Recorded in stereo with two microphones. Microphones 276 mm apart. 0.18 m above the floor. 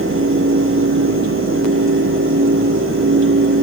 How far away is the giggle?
I don't hear a giggle.